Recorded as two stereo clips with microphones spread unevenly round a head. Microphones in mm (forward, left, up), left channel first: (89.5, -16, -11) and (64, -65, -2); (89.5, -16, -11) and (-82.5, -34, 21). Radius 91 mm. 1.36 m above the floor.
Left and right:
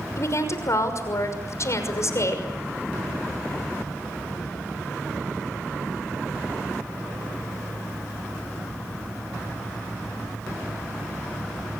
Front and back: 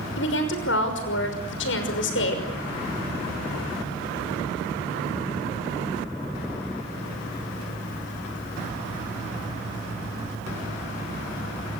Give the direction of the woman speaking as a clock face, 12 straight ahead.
11 o'clock.